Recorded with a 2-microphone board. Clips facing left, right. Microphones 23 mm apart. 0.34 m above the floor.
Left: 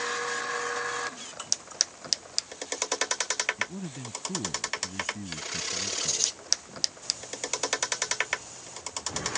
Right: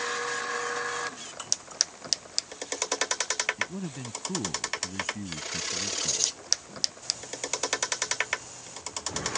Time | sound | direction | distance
3.6 | a man speaking | 15° right (ahead or behind) | ?